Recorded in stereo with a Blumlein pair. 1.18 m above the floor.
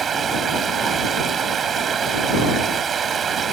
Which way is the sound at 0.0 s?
20° right.